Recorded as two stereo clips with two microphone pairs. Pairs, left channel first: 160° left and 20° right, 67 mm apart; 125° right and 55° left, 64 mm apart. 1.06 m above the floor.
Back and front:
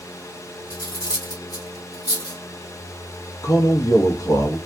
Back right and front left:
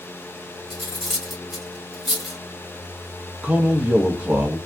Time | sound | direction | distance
0.7 | cutlery clinking | 145° left | 1.2 m
3.4 | a man speaking | 125° left | 0.9 m